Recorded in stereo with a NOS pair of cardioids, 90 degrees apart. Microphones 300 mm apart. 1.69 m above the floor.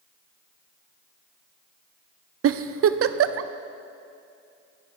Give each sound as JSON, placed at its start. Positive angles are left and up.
{"t": 2.4, "sound": "a giggle", "azimuth_deg": -50, "distance_m": 0.8}